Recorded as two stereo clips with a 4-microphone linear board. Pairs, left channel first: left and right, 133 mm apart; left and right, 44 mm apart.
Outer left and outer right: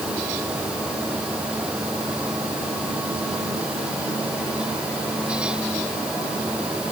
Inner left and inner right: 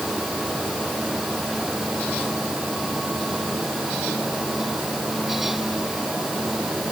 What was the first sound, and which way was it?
Only background noise.